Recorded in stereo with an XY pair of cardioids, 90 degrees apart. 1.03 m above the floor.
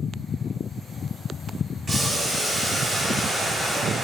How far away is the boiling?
About 1.5 m.